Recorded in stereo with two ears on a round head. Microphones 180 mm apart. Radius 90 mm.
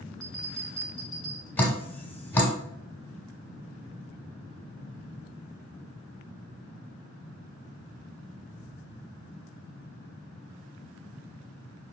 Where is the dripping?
10° left (ahead or behind), 1.2 m.